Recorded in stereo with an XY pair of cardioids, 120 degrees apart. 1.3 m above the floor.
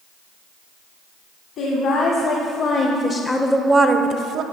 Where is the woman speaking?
65° left, 1.7 m; by 4.4 s 75° right, 0.8 m.